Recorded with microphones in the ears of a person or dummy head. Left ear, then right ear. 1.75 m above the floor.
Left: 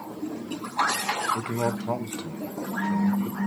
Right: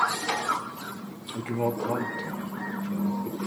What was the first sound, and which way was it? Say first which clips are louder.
A man speaking: left 1 dB; 20° left (ahead or behind).